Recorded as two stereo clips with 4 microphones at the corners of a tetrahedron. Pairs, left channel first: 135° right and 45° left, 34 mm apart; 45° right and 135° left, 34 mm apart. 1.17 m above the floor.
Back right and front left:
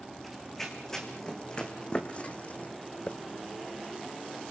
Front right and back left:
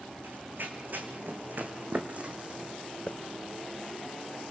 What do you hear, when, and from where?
0.2 s running footsteps: 140° left, 4 m; by 2.7 s 170° right, 3 m
3.1 s a hiss: 85° right, 0.7 m